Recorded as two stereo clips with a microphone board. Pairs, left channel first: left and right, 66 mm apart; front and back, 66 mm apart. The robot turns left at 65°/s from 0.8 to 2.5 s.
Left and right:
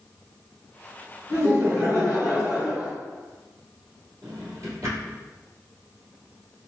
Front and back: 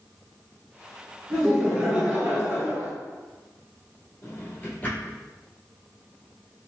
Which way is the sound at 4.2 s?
60° right.